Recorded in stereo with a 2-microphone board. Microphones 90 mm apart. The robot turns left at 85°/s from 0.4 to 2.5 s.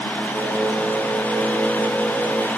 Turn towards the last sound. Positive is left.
No sound to turn to.